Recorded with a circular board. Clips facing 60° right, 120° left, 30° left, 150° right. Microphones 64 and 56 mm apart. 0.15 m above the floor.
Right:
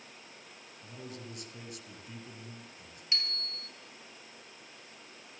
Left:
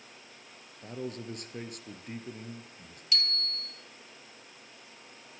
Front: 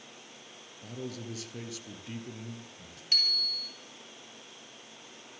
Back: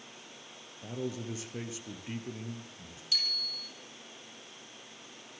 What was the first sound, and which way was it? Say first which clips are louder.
A man speaking: left 8 dB, back 3 dB; 145° left.